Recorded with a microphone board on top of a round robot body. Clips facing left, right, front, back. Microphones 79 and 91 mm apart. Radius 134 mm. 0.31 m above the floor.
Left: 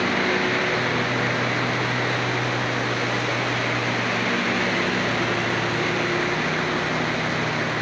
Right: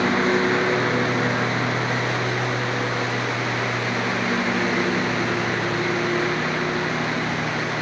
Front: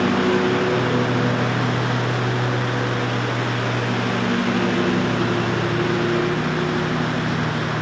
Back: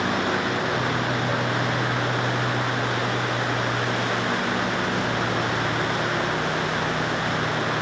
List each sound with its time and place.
0.0 s a lawn mower: 25° right; by 7.8 s 10° right